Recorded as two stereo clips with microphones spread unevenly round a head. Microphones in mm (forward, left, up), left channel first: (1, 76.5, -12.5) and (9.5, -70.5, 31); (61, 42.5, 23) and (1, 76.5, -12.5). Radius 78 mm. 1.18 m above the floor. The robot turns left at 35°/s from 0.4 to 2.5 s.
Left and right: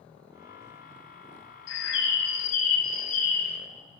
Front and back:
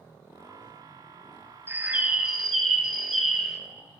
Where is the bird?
85° left, 1.2 m; by 3.6 s 55° left, 1.2 m.